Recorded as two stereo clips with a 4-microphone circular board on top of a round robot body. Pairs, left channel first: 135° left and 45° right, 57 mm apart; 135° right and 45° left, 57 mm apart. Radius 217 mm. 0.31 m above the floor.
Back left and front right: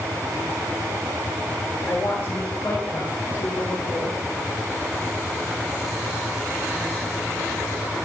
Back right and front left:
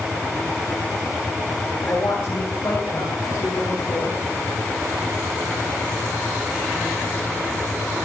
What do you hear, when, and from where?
1.9 s a woman speaking: 160° right, 2.5 m